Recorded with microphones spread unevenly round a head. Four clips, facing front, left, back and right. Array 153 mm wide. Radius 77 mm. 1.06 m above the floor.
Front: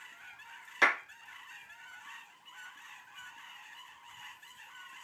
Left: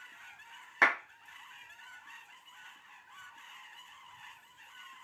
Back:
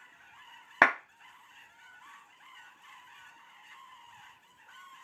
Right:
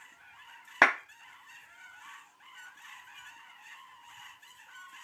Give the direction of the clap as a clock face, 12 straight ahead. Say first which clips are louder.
Right 4 dB, back 5 dB; 5 o'clock.